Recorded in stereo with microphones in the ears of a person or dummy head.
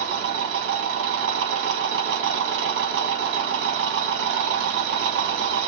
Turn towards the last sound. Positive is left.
turn(degrees=-65)  # may be behind; listen again after turning